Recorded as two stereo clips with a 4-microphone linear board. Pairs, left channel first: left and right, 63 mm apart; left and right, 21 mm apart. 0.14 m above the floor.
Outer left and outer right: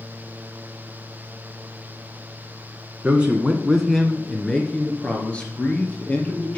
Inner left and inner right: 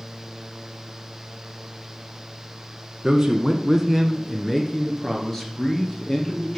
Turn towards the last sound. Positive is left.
turn(degrees=25)  # may be behind; listen again after turning